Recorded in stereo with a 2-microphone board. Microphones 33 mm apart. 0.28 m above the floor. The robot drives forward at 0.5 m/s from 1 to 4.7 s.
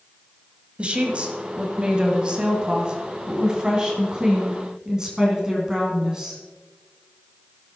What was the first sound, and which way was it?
A woman speaking, 35° right (ahead or behind).